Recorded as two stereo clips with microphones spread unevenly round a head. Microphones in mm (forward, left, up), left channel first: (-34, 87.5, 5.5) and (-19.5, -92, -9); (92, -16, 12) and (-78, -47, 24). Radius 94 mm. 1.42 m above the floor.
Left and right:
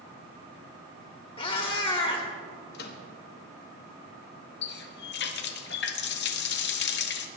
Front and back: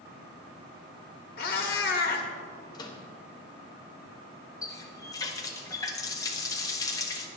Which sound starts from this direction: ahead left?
A cat meowing, at 1.4 s.